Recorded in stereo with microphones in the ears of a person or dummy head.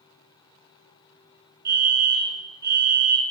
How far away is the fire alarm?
About 2.0 m.